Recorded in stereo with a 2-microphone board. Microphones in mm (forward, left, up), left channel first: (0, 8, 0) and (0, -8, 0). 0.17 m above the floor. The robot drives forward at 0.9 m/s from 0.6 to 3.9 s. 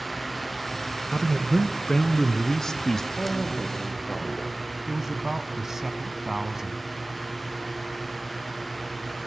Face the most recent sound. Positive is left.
turn(degrees=-20)  # may be behind; listen again after turning